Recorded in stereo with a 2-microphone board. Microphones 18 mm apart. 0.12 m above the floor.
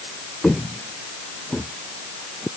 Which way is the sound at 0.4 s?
60° left (ahead or behind).